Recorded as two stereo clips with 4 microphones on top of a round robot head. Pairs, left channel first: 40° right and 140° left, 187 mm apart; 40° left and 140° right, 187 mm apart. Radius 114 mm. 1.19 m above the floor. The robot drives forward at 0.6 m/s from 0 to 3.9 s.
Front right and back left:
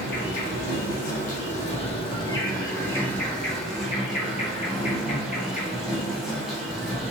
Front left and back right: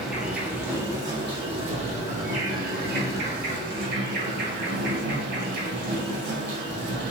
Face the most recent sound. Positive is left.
turn(degrees=-135)